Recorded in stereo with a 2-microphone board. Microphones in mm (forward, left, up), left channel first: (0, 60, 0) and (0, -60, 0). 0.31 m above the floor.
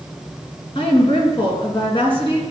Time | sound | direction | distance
0.8 | a woman speaking | 45° left (ahead or behind) | 3 m